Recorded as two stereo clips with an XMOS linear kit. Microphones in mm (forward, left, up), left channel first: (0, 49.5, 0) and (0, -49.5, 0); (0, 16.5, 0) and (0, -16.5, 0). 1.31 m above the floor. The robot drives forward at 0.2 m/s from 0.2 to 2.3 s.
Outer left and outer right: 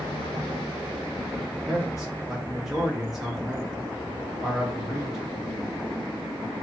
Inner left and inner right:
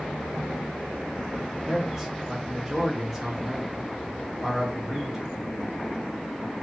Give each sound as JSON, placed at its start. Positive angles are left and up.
{"t": 1.5, "sound": "a man speaking", "side_deg": -5, "distance_m": 1.1}